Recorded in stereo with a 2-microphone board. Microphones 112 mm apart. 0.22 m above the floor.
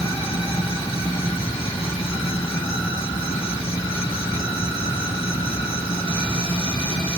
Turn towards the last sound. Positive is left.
turn(degrees=55)  # may be behind; listen again after turning